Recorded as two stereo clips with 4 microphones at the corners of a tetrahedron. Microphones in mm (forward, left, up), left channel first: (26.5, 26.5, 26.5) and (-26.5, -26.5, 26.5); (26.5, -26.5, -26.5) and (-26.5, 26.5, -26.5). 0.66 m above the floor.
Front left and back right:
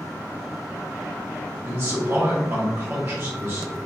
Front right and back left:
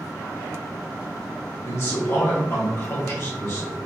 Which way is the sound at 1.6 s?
90° right.